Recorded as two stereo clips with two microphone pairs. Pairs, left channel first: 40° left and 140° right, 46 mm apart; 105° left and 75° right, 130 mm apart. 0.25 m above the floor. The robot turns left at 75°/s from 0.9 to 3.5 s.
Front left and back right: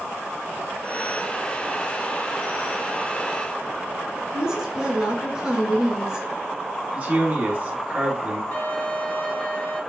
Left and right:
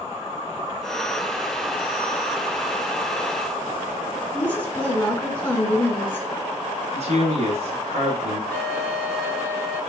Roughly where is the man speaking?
Right.